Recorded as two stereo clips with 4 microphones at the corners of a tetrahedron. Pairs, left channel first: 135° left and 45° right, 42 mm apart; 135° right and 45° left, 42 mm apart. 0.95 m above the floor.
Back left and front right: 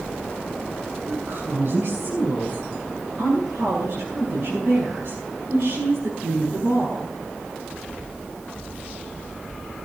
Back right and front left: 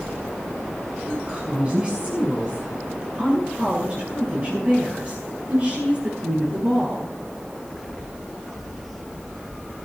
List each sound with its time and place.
1.1 s a woman speaking: 20° right, 8 m; by 7.1 s 10° right, 12 m